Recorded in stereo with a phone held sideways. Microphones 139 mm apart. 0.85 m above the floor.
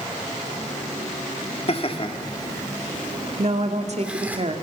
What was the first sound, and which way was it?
Laughter, 50° left (ahead or behind).